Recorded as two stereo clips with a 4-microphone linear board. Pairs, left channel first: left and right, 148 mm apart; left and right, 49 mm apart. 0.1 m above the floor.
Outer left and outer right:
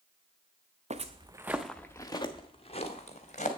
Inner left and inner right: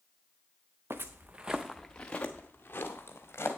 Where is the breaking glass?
I don't hear breaking glass.